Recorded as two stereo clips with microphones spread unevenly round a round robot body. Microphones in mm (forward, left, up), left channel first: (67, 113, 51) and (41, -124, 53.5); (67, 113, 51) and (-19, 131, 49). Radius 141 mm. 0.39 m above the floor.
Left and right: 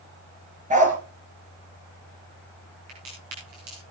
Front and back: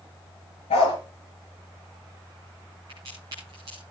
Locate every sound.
0.7 s a dog barking: 35° right, 3 m
2.9 s a crack: 125° right, 9.5 m